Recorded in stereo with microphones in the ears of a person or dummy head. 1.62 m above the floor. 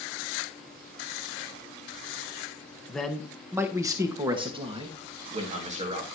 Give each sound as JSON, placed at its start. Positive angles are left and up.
{"t": 2.9, "sound": "a man speaking", "side_deg": 0, "distance_m": 1.4}